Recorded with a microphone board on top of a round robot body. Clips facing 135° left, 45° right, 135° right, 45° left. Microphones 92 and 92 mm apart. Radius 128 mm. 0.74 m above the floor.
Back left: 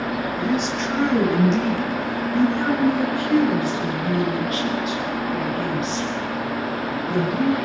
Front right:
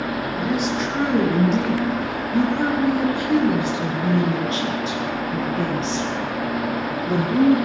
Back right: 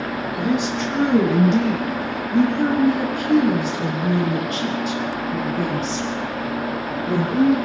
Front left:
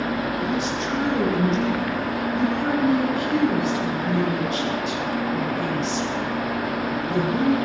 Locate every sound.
0.4 s a woman speaking: 130° right, 10 m; by 7.5 s 90° right, 12 m